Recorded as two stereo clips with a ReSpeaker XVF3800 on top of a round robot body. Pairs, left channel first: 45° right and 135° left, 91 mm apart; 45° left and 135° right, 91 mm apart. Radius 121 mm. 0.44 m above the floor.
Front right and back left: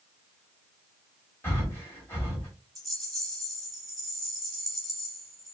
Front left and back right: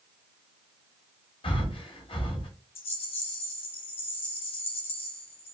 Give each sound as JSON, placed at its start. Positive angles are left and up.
{"t": 1.4, "sound": "breathing", "azimuth_deg": 20, "distance_m": 1.8}
{"t": 2.8, "sound": "a rattle", "azimuth_deg": 45, "distance_m": 1.2}